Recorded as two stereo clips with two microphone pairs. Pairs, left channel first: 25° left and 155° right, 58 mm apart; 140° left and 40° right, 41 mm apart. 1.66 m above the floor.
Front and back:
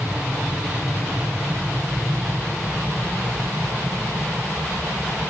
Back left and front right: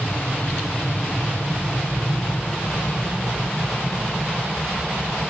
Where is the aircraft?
150° left; by 5.3 s 170° left.